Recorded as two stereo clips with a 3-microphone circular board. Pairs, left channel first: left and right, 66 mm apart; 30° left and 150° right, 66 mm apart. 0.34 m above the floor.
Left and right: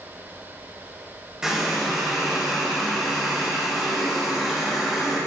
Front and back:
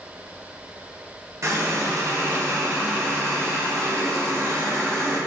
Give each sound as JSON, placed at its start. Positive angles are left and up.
{"t": 1.4, "sound": "a running tap", "azimuth_deg": -170, "distance_m": 0.9}